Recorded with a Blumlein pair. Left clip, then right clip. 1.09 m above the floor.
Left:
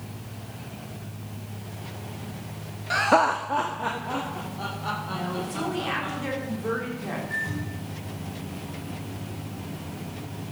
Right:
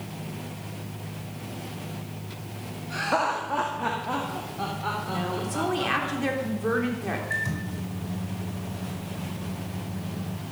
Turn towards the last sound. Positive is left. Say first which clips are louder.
# right 1 dB
turn(degrees=-25)